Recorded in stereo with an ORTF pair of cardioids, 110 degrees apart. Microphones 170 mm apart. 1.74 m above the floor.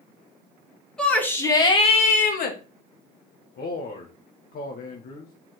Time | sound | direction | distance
1.0 | a shout | 5° left | 2.5 m
3.6 | a man speaking | 55° left | 1.6 m